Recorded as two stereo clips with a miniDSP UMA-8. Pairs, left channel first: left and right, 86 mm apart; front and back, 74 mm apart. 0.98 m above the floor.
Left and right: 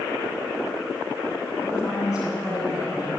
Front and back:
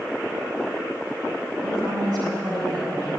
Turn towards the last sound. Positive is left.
turn(degrees=-170)